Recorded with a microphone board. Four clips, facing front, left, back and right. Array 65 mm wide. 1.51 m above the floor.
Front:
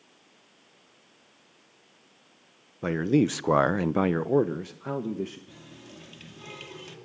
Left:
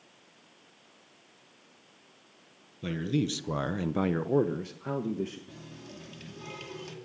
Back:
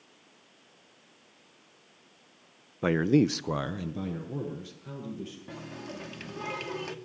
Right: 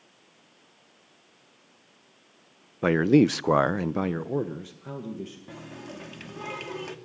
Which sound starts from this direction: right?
A man speaking, at 2.8 s.